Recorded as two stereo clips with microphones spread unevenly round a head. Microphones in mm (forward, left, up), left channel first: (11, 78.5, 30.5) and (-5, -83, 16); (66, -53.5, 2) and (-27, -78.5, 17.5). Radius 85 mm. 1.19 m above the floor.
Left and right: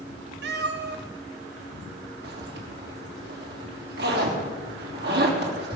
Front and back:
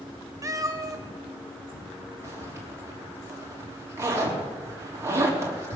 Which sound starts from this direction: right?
A zipper, at 2.2 s.